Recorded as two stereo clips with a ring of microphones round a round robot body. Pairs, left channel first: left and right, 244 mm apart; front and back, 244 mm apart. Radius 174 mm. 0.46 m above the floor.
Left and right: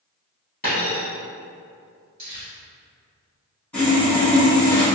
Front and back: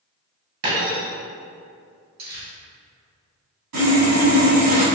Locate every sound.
0.6 s a dropped coin: 155° left, 2.0 m
2.2 s crumpling: 160° right, 1.3 m
3.7 s sawing: 175° left, 1.6 m